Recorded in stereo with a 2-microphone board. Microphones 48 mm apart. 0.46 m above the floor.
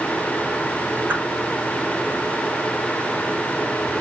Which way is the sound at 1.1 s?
40° right (ahead or behind).